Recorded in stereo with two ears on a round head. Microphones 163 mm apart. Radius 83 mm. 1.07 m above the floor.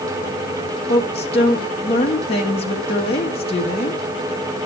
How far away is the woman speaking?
About 1.4 m.